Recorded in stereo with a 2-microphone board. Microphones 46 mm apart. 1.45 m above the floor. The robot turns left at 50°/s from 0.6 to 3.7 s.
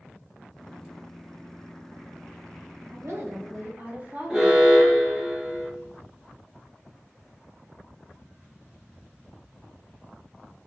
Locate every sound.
2.9 s a woman speaking: 100° right, 1.0 m; by 4.7 s 140° right, 1.0 m
4.3 s an alarm: 10° right (ahead or behind), 0.7 m